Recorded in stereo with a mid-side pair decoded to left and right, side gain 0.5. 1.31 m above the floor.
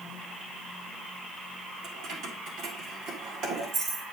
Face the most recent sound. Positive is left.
turn(degrees=-65)